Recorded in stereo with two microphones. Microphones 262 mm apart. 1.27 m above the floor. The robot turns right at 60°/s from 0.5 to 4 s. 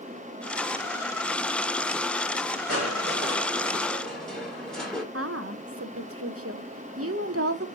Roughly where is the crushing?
Right.